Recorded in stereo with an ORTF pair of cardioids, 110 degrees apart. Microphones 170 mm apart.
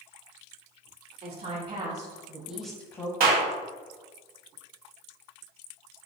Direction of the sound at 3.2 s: 65° right.